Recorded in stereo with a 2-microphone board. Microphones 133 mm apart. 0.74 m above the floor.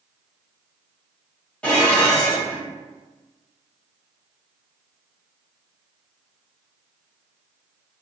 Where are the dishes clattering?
10° left (ahead or behind), 1.2 m.